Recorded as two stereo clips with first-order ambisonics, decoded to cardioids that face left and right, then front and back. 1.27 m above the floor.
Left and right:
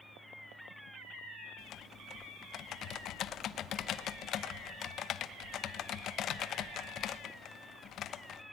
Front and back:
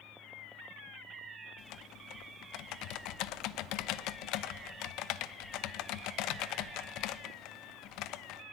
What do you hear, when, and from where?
1.6 s typing on a keyboard: 35° left, 0.9 m